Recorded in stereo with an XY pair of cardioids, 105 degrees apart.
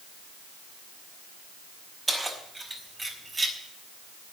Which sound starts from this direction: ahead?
Keys jangling, at 2.1 s.